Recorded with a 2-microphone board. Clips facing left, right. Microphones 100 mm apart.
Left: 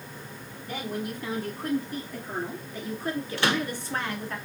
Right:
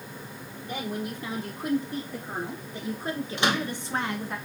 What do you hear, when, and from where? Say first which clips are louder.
0.6 s a woman speaking: even; 20° right (ahead or behind), 3 m
3.4 s a microwave: even; 20° right (ahead or behind), 0.9 m